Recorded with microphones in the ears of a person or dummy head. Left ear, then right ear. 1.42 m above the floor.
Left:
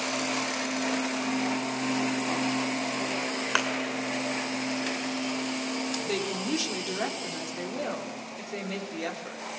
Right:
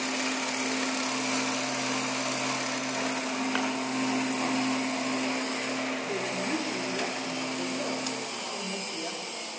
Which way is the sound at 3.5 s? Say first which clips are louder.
Left 5 dB; 35° left (ahead or behind).